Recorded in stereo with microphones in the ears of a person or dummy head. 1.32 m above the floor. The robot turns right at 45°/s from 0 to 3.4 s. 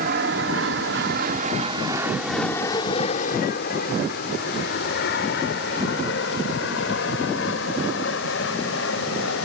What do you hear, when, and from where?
0.0 s an aircraft: 50° right (ahead or behind); by 9.5 s 80° left